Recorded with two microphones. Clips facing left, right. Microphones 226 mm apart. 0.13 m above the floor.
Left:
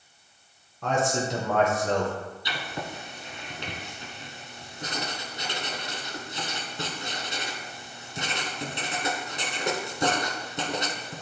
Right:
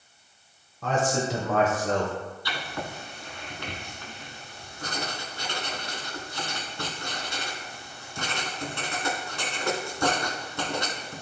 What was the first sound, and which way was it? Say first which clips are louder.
A man speaking: even; centre (ahead or behind).